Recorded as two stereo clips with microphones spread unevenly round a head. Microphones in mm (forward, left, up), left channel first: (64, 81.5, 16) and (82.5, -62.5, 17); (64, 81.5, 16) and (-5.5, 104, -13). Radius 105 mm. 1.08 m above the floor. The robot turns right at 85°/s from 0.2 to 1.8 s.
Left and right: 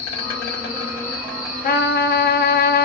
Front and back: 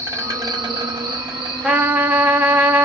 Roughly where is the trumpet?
Left.